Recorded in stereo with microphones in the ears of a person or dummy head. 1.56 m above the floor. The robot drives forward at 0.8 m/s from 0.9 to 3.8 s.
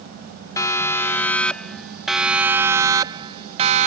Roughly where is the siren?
Left.